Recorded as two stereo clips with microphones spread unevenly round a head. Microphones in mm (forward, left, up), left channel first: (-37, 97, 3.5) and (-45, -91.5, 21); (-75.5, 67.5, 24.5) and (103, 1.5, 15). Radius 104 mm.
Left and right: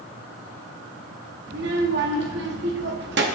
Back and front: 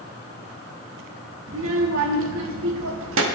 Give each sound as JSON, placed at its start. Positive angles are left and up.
{"t": 1.5, "sound": "a child speaking", "azimuth_deg": -50, "distance_m": 1.1}